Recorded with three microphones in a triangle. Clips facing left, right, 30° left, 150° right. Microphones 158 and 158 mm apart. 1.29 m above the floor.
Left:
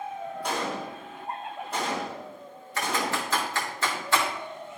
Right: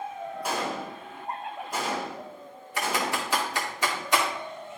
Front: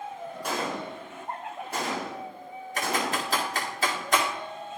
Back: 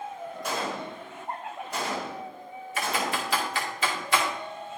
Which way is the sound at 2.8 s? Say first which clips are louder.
Even, front 1 dB; 15° right.